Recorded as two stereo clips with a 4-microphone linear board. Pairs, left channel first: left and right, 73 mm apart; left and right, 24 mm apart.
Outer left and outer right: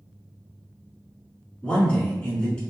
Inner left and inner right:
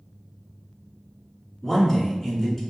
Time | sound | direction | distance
1.6 | a man speaking | 15° left (ahead or behind) | 1.4 m